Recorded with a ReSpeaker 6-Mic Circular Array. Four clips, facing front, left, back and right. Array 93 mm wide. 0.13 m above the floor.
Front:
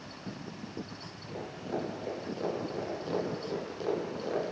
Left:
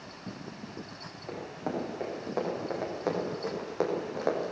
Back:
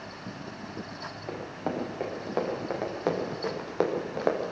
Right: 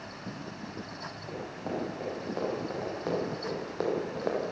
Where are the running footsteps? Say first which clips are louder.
Left 2 dB, back 3 dB; 165° left, 9 m; by 4.5 s 170° left, 5 m.